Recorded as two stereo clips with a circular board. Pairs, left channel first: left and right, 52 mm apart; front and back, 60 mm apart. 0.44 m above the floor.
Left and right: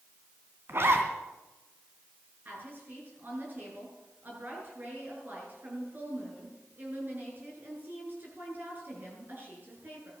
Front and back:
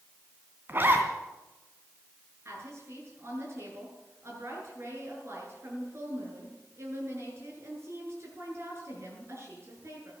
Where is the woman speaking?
140° right, 8 m.